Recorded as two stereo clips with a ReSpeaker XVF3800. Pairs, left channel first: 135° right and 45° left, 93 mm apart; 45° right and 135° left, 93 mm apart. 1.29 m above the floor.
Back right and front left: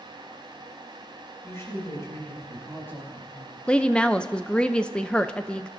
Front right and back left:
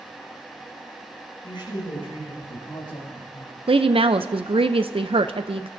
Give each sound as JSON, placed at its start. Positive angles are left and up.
{"t": 1.4, "sound": "a woman speaking", "azimuth_deg": -80, "distance_m": 7.5}
{"t": 3.7, "sound": "a woman speaking", "azimuth_deg": 145, "distance_m": 0.6}